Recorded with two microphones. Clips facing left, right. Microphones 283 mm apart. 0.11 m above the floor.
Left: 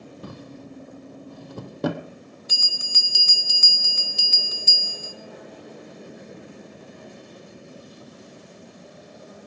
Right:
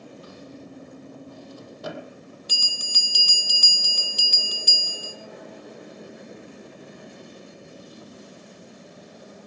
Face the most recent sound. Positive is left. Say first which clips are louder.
# even
turn(degrees=-40)  # may be behind; listen again after turning